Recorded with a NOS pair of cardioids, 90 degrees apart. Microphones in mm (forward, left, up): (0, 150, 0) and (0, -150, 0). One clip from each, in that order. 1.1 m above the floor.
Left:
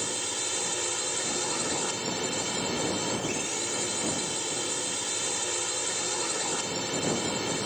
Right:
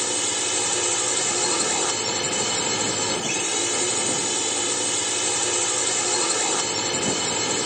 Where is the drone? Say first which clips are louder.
Right 7 dB; 50° right.